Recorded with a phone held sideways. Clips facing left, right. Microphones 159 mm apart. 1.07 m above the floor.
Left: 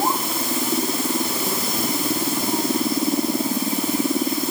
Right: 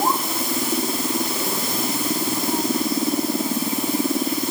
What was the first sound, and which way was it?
Only background noise.